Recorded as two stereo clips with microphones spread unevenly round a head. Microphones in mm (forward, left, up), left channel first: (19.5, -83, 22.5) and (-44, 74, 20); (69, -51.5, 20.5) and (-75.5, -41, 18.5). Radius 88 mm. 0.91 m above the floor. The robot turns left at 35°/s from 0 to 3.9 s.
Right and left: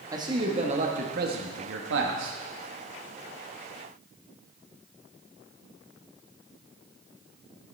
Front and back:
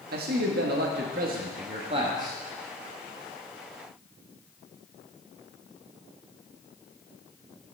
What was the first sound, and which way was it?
A man speaking, straight behind.